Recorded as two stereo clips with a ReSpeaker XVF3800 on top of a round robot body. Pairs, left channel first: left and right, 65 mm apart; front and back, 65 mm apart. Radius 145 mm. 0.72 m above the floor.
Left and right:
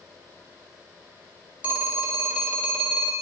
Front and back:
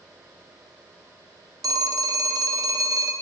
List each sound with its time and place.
1.6 s a phone ringing: 160° right, 1.8 m